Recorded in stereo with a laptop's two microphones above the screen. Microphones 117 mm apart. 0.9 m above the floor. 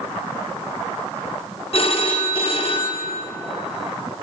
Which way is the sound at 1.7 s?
55° left (ahead or behind).